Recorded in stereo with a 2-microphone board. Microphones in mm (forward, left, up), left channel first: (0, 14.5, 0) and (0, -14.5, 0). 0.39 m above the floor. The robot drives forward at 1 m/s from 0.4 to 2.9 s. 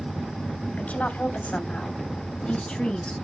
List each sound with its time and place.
0.8 s a woman speaking: 65° left (ahead or behind), 2 m; by 3.1 s 40° left (ahead or behind), 3 m